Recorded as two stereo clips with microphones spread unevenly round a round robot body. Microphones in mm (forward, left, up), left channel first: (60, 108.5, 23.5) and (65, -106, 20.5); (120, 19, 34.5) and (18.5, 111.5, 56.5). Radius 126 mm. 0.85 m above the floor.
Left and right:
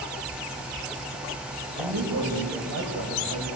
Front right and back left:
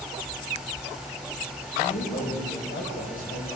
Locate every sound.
1.8 s a man speaking: 70° right, 5.5 m